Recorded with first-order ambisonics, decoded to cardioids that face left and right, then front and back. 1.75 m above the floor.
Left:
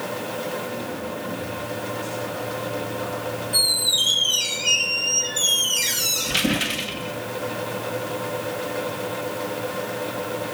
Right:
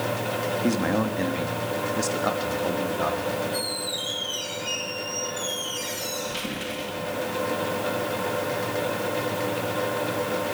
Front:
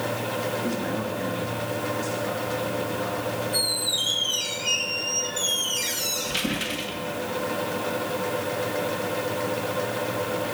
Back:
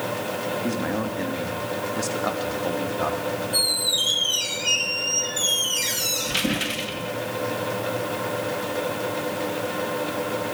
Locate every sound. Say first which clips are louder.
0.6 s a man speaking: right 5 dB, back 2 dB; 100° right, 2.5 m; by 3.4 s 145° right, 3.5 m
3.5 s a squeak: left 9 dB, back 4 dB; 105° left, 1.0 m